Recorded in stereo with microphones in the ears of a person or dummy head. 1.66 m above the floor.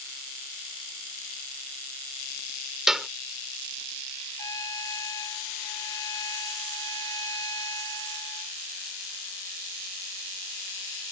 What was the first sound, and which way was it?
A clap, centre (ahead or behind).